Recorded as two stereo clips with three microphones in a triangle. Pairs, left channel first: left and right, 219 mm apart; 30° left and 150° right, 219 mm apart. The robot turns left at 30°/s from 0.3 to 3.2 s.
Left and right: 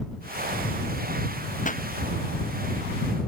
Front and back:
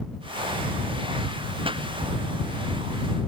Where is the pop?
145° left; by 1.8 s 140° left.